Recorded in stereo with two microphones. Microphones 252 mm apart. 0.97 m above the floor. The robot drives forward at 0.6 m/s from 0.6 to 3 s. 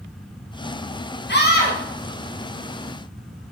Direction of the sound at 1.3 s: 40° left (ahead or behind).